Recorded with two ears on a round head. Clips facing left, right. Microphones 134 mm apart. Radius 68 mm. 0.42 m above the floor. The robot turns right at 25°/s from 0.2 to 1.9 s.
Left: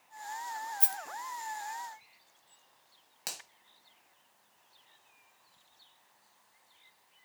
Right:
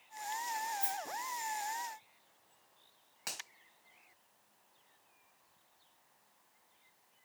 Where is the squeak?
I don't hear a squeak.